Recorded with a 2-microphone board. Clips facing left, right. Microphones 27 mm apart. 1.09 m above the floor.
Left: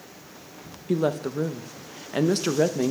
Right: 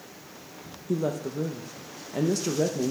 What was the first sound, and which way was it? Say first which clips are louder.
A woman speaking: left 4 dB; 55° left (ahead or behind).